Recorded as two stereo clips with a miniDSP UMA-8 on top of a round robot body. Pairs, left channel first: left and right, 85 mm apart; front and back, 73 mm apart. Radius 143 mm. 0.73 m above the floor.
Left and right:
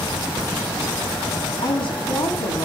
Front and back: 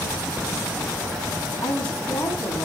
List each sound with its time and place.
1.6 s a woman speaking: 75° left, 6.5 m